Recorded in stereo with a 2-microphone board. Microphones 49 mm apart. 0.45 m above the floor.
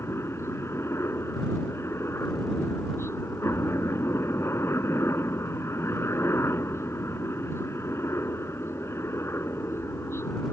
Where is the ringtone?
I don't hear a ringtone.